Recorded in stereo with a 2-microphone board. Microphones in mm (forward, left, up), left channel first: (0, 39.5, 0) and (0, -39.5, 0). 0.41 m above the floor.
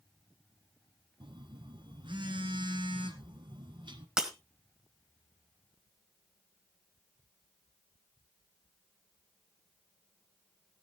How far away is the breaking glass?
About 1.4 m.